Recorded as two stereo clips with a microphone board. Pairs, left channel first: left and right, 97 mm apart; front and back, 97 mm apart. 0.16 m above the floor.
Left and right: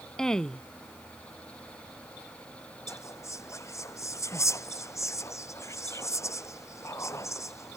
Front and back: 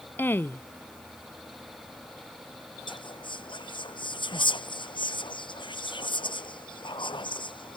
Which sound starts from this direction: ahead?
A woman speaking, at 0.2 s.